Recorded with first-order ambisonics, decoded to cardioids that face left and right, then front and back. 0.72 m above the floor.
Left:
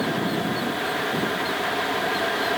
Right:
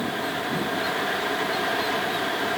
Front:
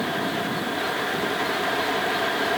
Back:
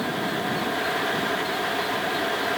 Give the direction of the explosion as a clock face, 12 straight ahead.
I don't hear an explosion.